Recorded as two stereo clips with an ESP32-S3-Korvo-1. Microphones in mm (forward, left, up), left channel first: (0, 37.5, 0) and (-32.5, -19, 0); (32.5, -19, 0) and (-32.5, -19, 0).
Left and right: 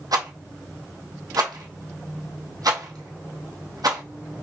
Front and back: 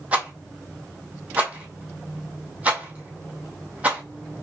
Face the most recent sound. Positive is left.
turn(degrees=-110)